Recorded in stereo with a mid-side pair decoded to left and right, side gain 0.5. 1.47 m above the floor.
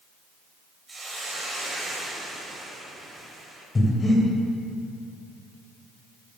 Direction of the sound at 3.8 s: 25° left.